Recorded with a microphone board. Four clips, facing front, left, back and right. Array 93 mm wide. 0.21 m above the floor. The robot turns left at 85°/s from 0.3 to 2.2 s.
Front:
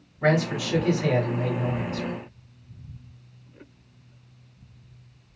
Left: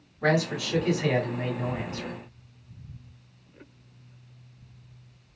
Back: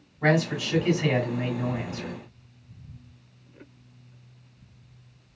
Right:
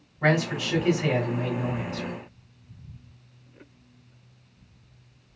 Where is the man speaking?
100° right, 2 m; by 2.1 s 105° left, 2 m.